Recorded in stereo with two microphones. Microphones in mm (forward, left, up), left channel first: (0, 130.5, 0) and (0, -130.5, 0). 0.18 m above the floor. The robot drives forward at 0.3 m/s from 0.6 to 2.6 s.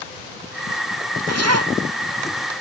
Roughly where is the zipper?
Right.